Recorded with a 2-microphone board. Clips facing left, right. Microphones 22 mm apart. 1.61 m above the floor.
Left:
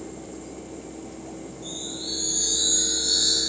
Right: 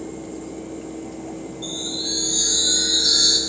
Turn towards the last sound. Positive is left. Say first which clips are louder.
# right 7 dB
turn(degrees=-80)